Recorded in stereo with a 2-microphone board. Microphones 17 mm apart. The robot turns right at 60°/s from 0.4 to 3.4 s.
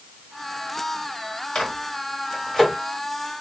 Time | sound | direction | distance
1.6 | a microwave | 75° left (ahead or behind) | 2.5 m